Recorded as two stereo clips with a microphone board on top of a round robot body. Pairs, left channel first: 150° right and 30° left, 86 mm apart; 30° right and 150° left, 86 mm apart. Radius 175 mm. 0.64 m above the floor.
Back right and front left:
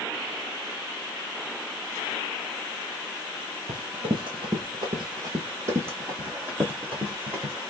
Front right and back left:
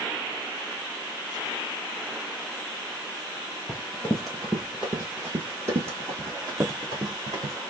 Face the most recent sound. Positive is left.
turn(degrees=105)